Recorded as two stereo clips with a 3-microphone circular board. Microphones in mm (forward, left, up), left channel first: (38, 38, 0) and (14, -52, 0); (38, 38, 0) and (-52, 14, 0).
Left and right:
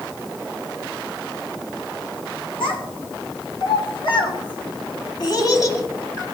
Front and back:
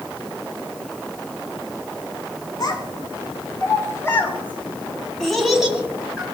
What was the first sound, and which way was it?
A child speaking, 55° left.